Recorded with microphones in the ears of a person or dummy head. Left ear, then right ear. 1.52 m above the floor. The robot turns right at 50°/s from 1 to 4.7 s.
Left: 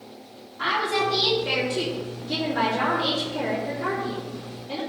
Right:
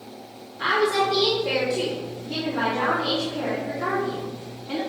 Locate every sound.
0.6 s a woman speaking: 20° left, 2.5 m; by 4.8 s 155° right, 2.5 m